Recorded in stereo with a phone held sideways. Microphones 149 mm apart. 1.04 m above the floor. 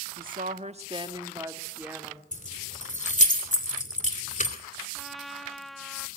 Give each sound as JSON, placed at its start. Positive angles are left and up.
{"t": 0.2, "sound": "a woman speaking", "side_deg": -70, "distance_m": 1.4}
{"t": 2.3, "sound": "keys jangling", "side_deg": 50, "distance_m": 2.5}
{"t": 5.0, "sound": "a trumpet", "side_deg": 0, "distance_m": 0.6}